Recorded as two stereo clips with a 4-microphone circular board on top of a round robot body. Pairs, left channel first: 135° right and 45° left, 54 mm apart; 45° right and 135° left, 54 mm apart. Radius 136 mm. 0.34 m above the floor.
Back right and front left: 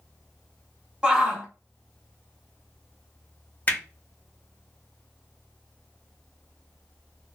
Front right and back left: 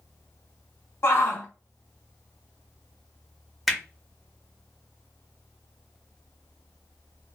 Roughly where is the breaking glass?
I don't hear breaking glass.